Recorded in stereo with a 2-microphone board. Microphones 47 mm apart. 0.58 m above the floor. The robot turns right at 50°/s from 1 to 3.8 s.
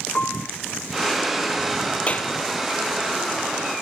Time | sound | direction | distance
0.1 | a piano | 25° left (ahead or behind) | ?
2.1 | a clap | 25° left (ahead or behind) | ?